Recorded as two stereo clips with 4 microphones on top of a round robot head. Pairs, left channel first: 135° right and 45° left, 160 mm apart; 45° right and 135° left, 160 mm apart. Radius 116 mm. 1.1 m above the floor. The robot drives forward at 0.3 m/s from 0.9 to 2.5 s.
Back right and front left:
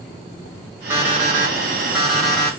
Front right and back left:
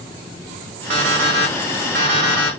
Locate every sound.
0.9 s an alarm clock: 125° left, 1.4 m; by 2.6 s 135° left, 1.7 m